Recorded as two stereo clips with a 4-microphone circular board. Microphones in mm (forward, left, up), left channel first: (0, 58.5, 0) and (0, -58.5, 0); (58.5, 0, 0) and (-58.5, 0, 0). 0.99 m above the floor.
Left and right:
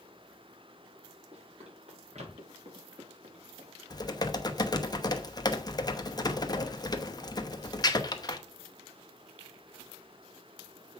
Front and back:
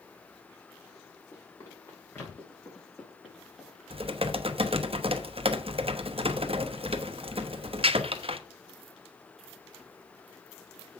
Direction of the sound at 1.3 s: 65° right.